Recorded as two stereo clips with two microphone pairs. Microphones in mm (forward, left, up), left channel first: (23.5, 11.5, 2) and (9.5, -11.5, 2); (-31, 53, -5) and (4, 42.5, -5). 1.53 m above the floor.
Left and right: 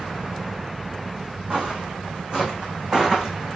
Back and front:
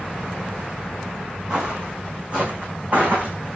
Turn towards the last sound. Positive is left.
turn(degrees=-55)